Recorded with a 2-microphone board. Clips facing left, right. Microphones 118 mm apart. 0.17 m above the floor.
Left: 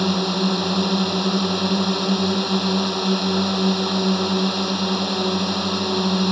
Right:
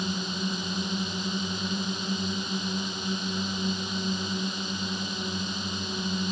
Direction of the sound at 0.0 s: 75° left (ahead or behind).